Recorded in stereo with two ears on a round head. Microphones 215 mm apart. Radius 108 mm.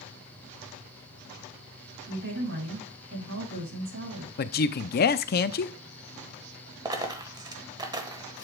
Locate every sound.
2.1 s a woman speaking: 55° right (ahead or behind), 7 m
4.4 s a man speaking: 40° left (ahead or behind), 0.6 m
6.8 s a dropped coin: 15° right (ahead or behind), 1.1 m